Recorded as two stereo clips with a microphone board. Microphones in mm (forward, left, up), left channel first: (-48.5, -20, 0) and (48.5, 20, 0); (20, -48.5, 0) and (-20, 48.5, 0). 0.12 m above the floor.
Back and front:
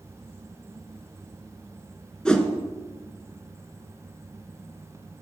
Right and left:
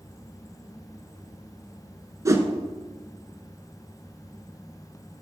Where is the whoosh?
130° left, 0.8 m.